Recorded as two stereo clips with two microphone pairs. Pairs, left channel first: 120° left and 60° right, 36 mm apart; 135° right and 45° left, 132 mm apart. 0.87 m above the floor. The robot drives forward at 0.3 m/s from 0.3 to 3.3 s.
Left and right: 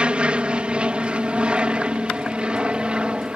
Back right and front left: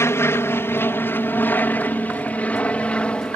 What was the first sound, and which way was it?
An aircraft, 80° right.